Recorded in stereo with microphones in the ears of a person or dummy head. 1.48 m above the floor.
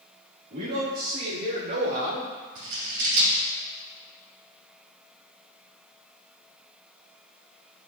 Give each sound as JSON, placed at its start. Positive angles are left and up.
{"t": 0.5, "sound": "a man speaking", "side_deg": -50, "distance_m": 3.0}
{"t": 2.5, "sound": "scissors", "side_deg": -60, "distance_m": 2.5}